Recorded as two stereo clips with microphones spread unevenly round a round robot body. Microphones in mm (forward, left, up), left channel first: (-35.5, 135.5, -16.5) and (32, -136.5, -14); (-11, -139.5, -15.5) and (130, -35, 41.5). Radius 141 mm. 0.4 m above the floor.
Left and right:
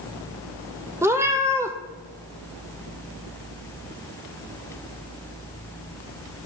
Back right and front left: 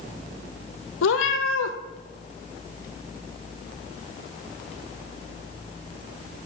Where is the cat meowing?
155° right, 0.9 m.